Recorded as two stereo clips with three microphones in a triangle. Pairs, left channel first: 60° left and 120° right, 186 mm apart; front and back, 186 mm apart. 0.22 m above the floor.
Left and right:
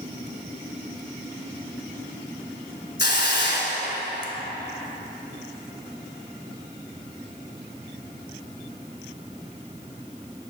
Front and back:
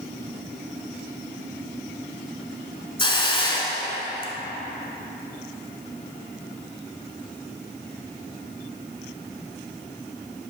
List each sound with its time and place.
3.0 s a hiss: 60° left, 0.9 m